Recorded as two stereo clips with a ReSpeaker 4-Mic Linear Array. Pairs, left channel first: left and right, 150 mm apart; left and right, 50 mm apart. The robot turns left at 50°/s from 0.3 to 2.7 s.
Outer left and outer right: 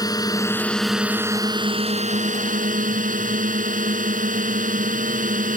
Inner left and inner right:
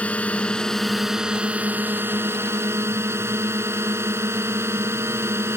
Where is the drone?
30° left; by 5.6 s 90° right.